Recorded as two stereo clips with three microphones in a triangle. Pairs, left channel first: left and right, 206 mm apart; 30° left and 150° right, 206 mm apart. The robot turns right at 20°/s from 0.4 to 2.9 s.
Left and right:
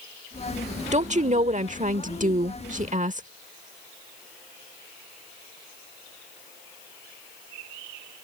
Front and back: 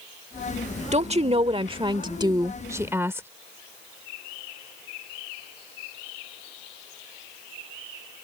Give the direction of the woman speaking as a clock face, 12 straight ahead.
4 o'clock.